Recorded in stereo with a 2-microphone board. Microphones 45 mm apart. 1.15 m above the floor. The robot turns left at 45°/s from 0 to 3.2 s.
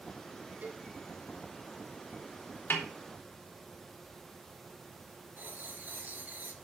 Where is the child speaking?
No child speaking in this recording.